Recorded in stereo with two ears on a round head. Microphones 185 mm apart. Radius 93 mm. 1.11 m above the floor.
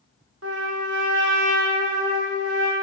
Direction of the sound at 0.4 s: 80° right.